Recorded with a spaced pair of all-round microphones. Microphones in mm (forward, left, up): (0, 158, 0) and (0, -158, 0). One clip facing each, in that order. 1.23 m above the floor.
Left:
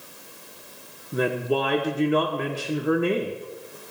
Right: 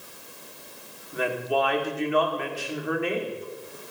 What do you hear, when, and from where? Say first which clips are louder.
1.1 s a woman speaking: left 3 dB; 50° left (ahead or behind), 1.1 m